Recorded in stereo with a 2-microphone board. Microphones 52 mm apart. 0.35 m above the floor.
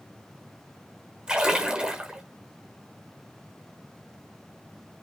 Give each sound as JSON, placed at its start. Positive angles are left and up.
{"t": 1.3, "sound": "a splash", "side_deg": -15, "distance_m": 1.0}